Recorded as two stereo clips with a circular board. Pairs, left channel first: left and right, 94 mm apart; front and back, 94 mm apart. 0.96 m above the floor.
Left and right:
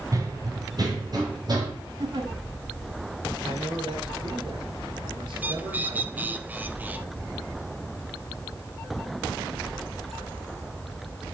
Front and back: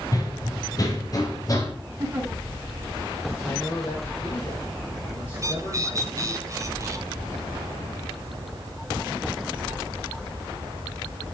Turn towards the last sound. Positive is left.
turn(degrees=-150)